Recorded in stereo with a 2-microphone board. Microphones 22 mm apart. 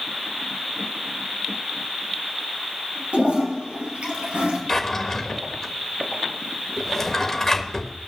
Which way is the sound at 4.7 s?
15° left (ahead or behind).